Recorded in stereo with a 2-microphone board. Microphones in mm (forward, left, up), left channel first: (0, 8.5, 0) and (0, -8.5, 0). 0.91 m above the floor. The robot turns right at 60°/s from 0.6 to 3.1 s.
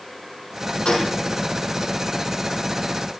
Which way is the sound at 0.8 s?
75° left (ahead or behind).